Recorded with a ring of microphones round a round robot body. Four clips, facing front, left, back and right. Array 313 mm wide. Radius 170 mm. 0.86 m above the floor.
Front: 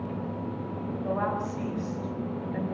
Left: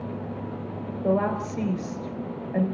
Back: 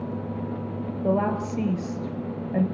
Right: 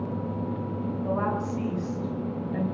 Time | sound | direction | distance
1.0 | a woman speaking | 140° left | 4 m